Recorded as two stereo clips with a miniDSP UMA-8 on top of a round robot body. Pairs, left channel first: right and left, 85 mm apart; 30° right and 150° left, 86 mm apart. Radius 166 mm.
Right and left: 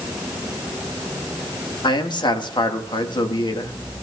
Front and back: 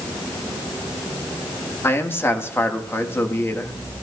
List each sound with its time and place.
1.8 s a man speaking: 85° right, 1.7 m